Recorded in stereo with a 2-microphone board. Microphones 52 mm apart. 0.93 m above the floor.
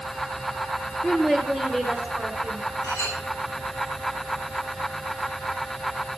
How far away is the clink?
About 8 m.